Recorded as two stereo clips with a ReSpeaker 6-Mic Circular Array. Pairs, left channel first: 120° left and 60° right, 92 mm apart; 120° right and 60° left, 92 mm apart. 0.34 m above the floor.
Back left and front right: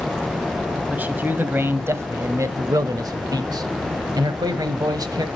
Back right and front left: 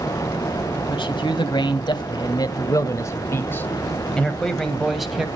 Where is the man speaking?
130° right, 1.9 m; by 5.3 s 25° right, 1.9 m.